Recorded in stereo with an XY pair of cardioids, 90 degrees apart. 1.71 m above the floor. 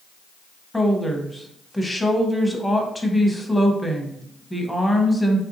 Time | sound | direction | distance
0.7 | a woman speaking | 5° left | 0.9 m